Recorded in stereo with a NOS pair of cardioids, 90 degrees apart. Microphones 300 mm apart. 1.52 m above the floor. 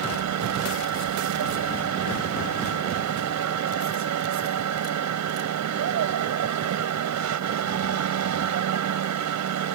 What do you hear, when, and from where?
0.0 s a machine running: 60° right